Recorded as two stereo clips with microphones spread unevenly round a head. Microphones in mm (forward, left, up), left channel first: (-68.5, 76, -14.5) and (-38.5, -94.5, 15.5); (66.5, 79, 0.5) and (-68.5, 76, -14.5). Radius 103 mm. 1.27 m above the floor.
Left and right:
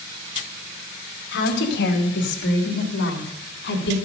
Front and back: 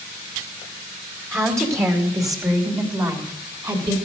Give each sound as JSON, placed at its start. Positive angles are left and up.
{"t": 1.3, "sound": "a woman speaking", "azimuth_deg": 110, "distance_m": 2.5}